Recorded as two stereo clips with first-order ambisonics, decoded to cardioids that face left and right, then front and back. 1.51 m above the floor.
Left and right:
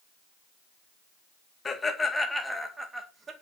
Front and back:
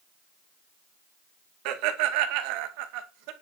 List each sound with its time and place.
1.6 s laughter: 165° left, 2 m; by 3.3 s 160° right, 2 m